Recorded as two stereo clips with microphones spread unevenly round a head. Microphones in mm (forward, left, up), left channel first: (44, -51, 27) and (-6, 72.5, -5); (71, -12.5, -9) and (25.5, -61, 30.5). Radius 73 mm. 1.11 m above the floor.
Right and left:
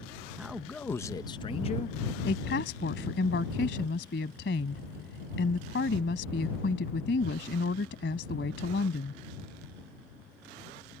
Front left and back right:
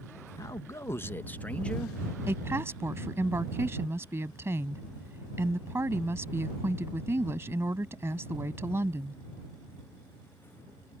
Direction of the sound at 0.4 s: 35° left.